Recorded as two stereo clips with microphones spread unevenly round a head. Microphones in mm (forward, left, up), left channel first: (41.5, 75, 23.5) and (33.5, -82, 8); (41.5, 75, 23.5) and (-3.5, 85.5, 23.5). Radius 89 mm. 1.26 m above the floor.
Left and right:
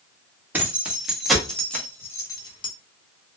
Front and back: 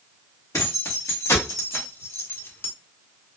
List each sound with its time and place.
0.5 s keys jangling: 15° right, 1.7 m; by 2.7 s 30° left, 1.1 m